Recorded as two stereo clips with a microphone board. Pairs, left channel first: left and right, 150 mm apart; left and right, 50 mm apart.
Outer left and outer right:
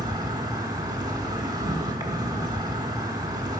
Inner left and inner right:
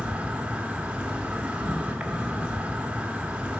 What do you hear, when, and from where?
0.0 s an insect: 25° right (ahead or behind), 1.0 m